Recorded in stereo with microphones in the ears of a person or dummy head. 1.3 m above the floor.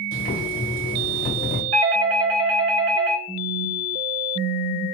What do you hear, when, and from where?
0.1 s boiling: 45° left (ahead or behind), 1.1 m
1.7 s a doorbell: 70° right (ahead or behind), 0.8 m
3.3 s a phone buzzing: 25° left (ahead or behind), 0.8 m